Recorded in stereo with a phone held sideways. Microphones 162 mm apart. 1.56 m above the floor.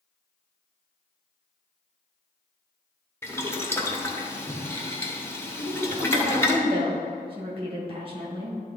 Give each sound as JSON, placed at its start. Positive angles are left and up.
{"t": 3.2, "sound": "boiling", "side_deg": 15, "distance_m": 0.9}
{"t": 5.6, "sound": "a woman speaking", "side_deg": -35, "distance_m": 1.9}